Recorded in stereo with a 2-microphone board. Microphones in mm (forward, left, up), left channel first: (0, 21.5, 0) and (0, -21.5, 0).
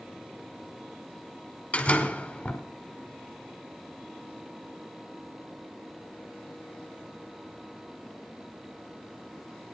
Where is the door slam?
30° left (ahead or behind), 1.8 m.